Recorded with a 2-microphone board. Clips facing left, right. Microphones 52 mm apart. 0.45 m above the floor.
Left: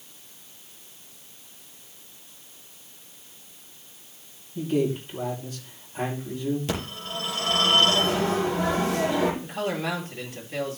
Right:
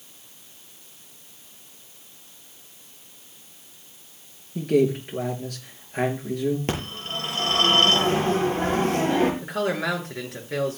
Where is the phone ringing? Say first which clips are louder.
Right 2 dB; 45° right (ahead or behind), 8 m.